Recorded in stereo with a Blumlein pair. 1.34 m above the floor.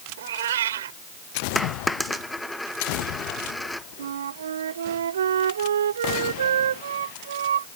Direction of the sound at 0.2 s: 60° right.